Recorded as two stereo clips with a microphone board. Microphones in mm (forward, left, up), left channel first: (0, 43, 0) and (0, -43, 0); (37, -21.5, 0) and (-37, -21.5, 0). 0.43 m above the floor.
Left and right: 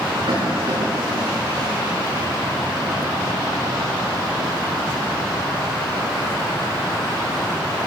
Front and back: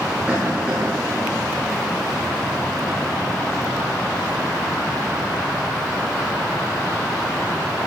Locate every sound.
0.3 s a cough: 115° right, 5.5 m